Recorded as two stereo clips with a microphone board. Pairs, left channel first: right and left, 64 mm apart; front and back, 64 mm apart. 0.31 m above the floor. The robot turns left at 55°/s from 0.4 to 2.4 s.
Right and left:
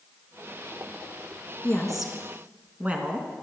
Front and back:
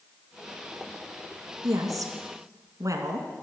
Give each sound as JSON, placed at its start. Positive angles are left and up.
{"t": 1.6, "sound": "a woman speaking", "azimuth_deg": -160, "distance_m": 2.5}